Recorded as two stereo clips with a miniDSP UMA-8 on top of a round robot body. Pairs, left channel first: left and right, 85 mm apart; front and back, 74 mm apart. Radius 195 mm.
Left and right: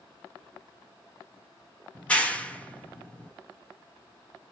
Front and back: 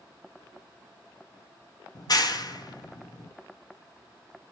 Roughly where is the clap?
Ahead.